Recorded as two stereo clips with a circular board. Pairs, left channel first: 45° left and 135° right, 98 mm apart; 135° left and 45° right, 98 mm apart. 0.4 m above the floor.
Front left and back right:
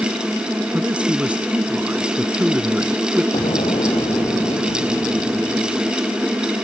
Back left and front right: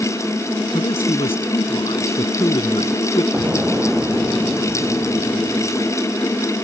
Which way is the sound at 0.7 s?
150° left.